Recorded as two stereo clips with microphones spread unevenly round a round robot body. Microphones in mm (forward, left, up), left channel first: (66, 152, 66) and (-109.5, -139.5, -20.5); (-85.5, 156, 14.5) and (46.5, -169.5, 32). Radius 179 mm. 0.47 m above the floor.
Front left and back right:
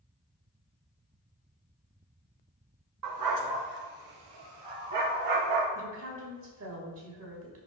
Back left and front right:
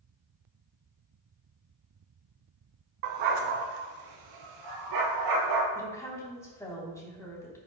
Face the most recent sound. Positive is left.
turn(degrees=-165)